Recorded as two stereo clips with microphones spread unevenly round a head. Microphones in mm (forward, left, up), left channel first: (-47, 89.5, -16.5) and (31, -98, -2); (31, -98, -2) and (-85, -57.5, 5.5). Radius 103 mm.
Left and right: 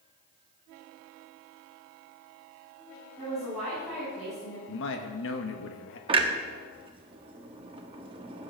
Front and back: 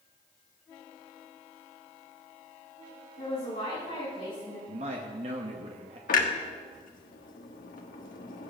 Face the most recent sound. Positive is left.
turn(degrees=0)